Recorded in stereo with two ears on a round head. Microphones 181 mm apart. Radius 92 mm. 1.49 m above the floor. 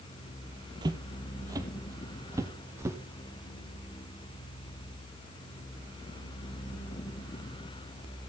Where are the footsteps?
20° right (ahead or behind), 1.8 m; by 3.0 s 15° right (ahead or behind), 3 m.